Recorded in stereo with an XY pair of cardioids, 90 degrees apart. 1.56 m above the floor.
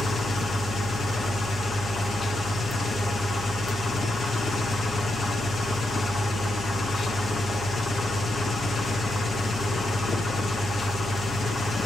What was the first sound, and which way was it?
An engine running, 45° left.